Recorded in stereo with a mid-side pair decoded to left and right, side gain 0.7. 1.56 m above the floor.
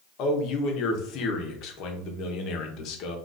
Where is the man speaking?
60° left, 1.0 m.